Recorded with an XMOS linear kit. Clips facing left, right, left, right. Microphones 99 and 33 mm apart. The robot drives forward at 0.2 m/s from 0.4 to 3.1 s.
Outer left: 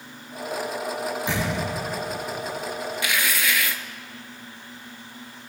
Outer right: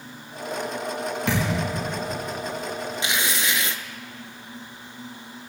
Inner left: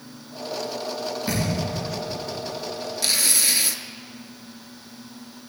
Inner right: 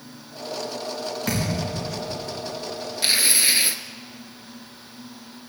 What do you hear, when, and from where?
1.3 s a thud: 80° right, 5.5 m; by 1.7 s 85° right, 5.5 m
3.0 s tearing paper: 25° right (ahead or behind), 0.5 m